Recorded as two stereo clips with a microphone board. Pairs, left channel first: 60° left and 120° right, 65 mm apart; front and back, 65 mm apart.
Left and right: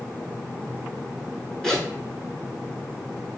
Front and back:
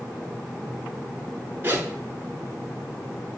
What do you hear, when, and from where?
1.6 s a zipper: 135° left, 1.0 m